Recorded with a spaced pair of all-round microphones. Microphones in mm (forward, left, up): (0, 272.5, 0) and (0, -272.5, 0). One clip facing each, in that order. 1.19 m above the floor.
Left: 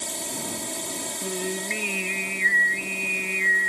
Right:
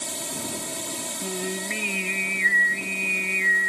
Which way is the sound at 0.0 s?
35° right (ahead or behind).